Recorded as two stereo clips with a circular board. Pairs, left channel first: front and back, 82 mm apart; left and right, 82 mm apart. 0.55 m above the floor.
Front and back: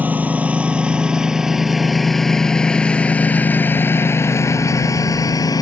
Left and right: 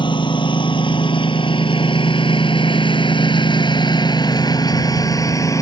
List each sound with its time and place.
0.0 s a lawn mower: 110° left; by 5.6 s 40° left